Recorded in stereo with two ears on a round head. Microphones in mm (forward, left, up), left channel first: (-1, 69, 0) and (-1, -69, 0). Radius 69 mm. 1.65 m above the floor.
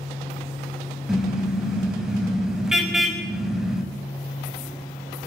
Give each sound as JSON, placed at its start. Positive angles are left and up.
{"t": 1.1, "sound": "a car horn", "side_deg": -5, "distance_m": 5.5}